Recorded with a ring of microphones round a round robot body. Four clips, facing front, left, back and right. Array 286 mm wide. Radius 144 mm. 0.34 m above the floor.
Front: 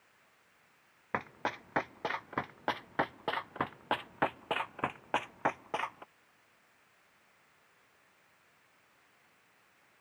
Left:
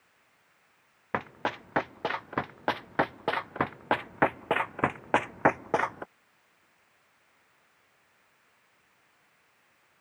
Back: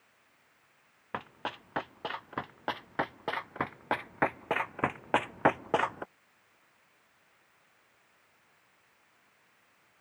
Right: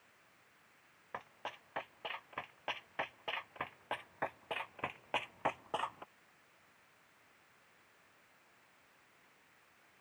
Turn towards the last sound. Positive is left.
turn(degrees=135)